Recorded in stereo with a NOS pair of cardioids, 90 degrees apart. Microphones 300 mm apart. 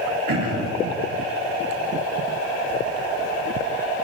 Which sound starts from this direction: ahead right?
Throat clearing, at 0.3 s.